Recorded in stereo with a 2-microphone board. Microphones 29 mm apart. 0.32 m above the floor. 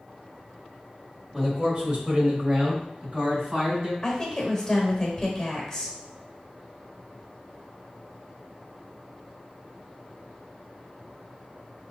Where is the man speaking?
20° right (ahead or behind), 1.1 m; by 3.9 s 35° right (ahead or behind), 2 m.